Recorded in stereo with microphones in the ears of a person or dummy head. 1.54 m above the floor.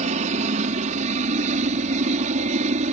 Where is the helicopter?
40° right (ahead or behind).